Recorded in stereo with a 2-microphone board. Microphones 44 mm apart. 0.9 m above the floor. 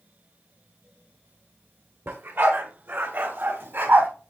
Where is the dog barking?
60° right (ahead or behind), 1.6 m; by 4.1 s 55° right (ahead or behind), 2.5 m.